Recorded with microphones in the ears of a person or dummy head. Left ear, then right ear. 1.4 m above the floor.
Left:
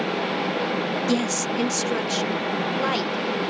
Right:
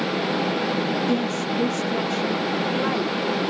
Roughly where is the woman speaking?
Left.